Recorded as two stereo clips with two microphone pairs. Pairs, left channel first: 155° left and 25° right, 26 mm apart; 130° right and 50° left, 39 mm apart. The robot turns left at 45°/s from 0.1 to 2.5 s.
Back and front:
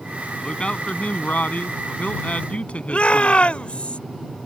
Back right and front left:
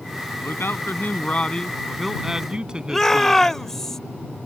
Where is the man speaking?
150° right; by 3.4 s 120° left.